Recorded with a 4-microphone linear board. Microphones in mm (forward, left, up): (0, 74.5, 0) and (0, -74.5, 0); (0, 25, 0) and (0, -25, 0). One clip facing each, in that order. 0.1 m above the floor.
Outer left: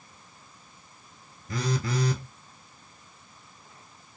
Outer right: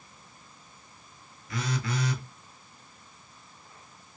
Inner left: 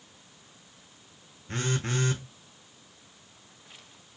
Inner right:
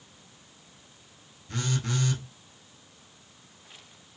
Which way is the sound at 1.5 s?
40° left (ahead or behind).